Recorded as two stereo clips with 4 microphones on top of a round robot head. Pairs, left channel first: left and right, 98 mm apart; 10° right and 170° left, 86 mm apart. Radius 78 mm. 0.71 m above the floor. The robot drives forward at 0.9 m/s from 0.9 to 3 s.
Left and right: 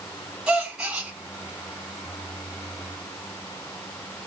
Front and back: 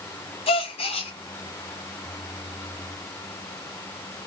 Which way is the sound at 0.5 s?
5° right.